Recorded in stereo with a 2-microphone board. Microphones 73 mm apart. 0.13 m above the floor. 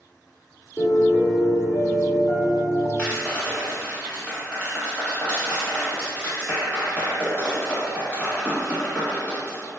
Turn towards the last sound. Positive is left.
turn(degrees=20)  # may be behind; listen again after turning